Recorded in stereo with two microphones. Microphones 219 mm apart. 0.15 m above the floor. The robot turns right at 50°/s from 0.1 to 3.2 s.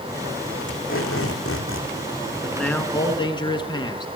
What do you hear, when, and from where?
0.7 s tape being pulled: 60° left, 2.5 m; by 1.9 s 120° left, 2.5 m
2.4 s a man speaking: straight ahead, 1.9 m; by 4.1 s 35° left, 1.9 m